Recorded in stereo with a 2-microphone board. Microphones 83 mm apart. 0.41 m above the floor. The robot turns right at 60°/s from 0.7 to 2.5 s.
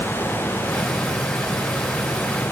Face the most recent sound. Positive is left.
No sound to turn to.